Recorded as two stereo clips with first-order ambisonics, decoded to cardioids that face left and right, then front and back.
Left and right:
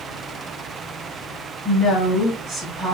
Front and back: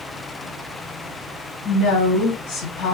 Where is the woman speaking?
10° right, 1.5 m.